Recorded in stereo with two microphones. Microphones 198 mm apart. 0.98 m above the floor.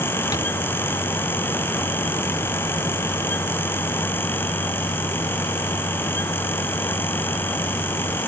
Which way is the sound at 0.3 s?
20° left (ahead or behind).